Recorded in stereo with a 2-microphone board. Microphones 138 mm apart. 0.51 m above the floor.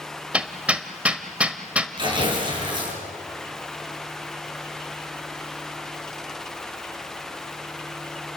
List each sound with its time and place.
0.3 s hammering: 10° right (ahead or behind), 1.3 m
2.0 s tearing paper: 35° right (ahead or behind), 6.5 m